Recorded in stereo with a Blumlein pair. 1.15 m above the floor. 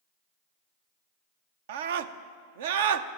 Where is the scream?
55° right, 0.7 m.